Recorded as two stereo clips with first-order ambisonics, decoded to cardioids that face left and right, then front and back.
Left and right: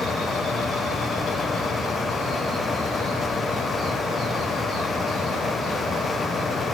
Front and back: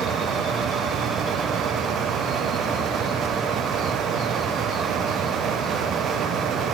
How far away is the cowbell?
No cowbell in this recording.